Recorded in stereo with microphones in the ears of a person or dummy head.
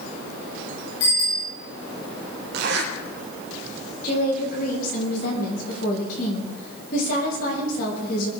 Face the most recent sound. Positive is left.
turn(degrees=55)  # may be behind; listen again after turning